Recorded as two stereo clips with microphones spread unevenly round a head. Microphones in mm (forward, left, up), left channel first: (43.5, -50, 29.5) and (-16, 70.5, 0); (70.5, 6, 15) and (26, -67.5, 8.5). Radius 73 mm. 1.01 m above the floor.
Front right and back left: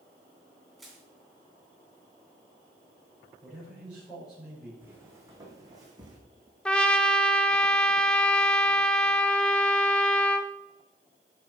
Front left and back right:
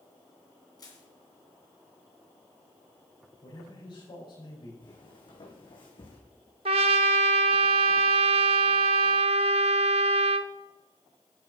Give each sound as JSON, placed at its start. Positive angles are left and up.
{"t": 0.8, "sound": "crushing", "azimuth_deg": 20, "distance_m": 2.5}
{"t": 3.4, "sound": "a man speaking", "azimuth_deg": 30, "distance_m": 5.0}
{"t": 4.8, "sound": "footsteps", "azimuth_deg": 40, "distance_m": 3.0}
{"t": 6.7, "sound": "a trumpet", "azimuth_deg": -150, "distance_m": 0.5}